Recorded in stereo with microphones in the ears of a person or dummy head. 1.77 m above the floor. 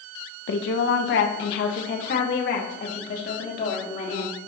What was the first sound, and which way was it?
A woman speaking, 75° left (ahead or behind).